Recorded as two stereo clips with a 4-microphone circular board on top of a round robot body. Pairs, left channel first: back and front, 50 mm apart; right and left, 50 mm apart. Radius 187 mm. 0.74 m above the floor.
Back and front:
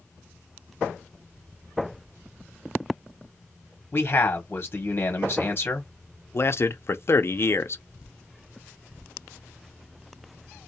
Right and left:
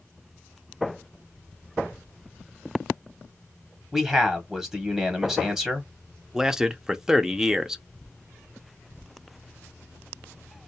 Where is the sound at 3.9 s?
170° left, 1.1 m.